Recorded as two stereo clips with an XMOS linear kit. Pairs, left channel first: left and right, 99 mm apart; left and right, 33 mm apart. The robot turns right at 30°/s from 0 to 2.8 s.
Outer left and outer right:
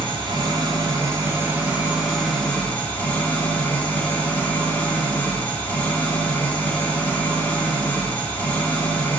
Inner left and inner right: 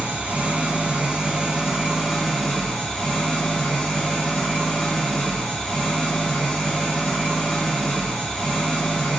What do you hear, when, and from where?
0.0 s an engine running: 65° right, 1.1 m; by 9.2 s 20° left, 1.1 m